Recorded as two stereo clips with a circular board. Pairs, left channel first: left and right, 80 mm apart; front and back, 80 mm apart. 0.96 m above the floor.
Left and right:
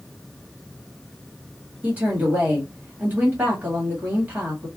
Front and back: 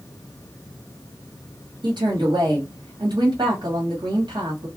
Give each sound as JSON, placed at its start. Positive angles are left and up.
{"t": 1.8, "sound": "a woman speaking", "azimuth_deg": -160, "distance_m": 1.4}